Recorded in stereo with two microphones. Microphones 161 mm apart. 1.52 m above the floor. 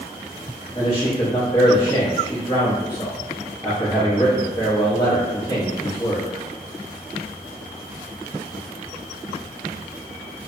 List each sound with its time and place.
0.8 s a man speaking: 30° left (ahead or behind), 1.0 m